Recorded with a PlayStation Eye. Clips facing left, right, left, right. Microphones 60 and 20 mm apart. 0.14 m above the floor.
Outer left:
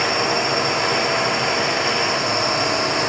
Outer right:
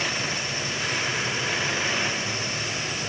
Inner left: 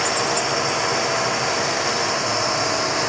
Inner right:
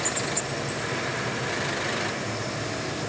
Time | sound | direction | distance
0.0 | a drone | 65° left (ahead or behind) | ?